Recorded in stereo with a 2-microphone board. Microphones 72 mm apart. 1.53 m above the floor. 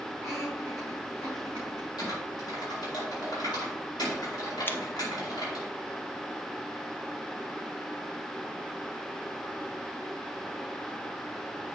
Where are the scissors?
30° left (ahead or behind), 0.7 m.